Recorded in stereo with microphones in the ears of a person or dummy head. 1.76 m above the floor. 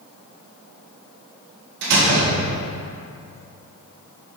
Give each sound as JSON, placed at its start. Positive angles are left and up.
{"t": 1.8, "sound": "a door slam", "side_deg": -65, "distance_m": 1.7}